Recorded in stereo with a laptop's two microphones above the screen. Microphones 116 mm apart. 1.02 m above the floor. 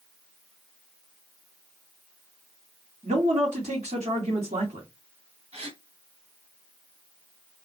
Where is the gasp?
65° right (ahead or behind), 1.8 m.